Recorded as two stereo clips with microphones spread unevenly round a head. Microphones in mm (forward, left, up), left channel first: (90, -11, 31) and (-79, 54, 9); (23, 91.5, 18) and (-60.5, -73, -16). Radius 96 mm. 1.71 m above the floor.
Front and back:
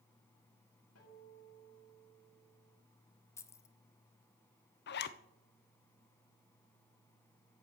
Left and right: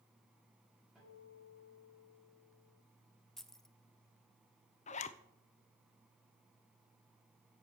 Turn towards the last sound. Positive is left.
turn(degrees=10)